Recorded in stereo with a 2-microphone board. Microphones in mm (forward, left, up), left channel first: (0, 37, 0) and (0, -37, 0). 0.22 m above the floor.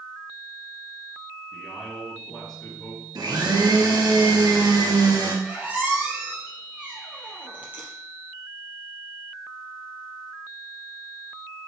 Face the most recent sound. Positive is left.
turn(degrees=-20)  # may be behind; listen again after turning